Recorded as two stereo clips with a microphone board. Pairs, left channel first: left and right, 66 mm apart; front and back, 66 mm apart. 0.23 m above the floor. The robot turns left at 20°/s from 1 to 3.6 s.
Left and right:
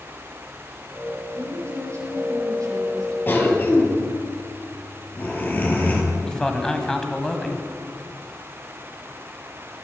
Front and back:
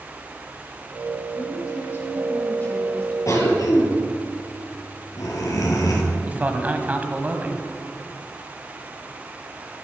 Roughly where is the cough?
Ahead left.